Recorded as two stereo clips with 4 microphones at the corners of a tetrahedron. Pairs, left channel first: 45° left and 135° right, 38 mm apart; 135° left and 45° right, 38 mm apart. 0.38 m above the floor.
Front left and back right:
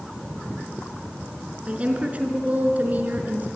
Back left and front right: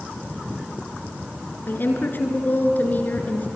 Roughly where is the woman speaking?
Behind.